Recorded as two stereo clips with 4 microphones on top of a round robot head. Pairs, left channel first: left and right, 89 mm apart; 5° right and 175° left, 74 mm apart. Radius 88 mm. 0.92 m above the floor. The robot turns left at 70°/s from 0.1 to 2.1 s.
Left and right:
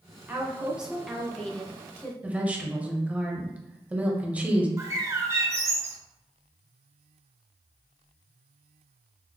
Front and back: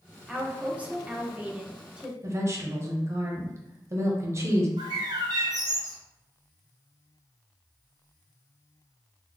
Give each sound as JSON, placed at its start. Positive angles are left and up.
{"t": 0.3, "sound": "a woman speaking", "azimuth_deg": -125, "distance_m": 0.9}
{"t": 2.2, "sound": "a woman speaking", "azimuth_deg": -160, "distance_m": 0.9}
{"t": 4.8, "sound": "a bird", "azimuth_deg": -150, "distance_m": 0.7}